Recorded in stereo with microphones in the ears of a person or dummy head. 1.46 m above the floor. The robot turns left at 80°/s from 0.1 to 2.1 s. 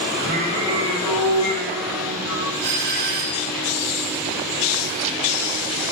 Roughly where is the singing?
Right.